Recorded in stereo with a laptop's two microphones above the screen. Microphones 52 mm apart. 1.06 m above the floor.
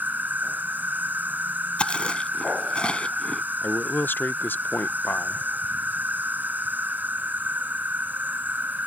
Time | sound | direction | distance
0.0 | an insect | 35° right (ahead or behind) | ?
1.8 | chewing | 20° left (ahead or behind) | ?
3.6 | a man speaking | 40° left (ahead or behind) | ?